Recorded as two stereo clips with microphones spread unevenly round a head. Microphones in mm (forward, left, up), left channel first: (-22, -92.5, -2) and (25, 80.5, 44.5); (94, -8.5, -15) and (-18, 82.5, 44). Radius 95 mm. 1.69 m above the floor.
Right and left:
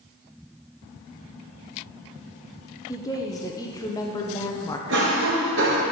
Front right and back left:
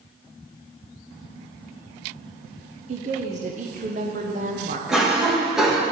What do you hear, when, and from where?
2.9 s a woman speaking: 175° left, 0.9 m
4.9 s a cough: 60° left, 1.9 m